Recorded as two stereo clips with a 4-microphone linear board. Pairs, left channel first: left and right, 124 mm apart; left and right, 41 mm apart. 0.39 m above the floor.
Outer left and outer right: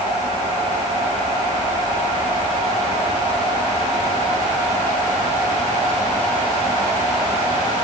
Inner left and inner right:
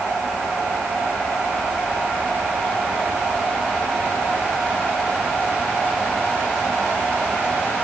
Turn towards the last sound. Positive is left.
No sound to turn to.